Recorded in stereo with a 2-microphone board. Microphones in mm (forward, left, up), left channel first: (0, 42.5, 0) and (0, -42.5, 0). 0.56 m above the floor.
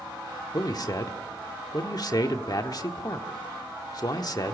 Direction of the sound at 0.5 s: 50° left (ahead or behind).